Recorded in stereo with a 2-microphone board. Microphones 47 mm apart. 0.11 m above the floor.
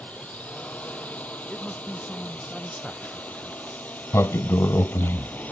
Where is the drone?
30° left (ahead or behind); by 5.5 s 35° left (ahead or behind).